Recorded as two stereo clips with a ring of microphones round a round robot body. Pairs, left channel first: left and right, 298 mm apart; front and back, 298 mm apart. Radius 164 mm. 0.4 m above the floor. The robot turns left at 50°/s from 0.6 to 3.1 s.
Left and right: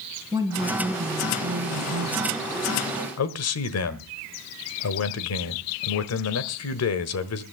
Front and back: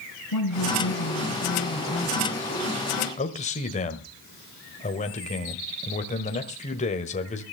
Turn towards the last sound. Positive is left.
turn(degrees=65)